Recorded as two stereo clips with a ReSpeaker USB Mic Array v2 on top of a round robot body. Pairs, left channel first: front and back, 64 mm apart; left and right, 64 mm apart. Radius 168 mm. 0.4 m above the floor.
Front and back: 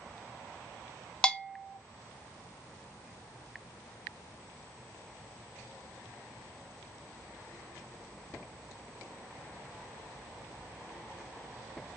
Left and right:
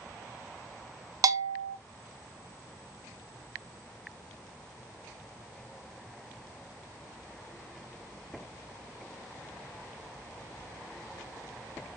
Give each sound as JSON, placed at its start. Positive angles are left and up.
{"t": 1.2, "sound": "a bell", "azimuth_deg": -75, "distance_m": 0.6}